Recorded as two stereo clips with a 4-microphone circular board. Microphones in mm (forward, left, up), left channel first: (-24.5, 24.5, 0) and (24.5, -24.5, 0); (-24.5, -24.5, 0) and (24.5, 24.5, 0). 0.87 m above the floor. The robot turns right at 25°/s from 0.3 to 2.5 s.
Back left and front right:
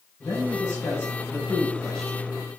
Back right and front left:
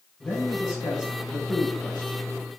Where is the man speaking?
170° left, 5.5 m; by 2.2 s 145° right, 5.5 m.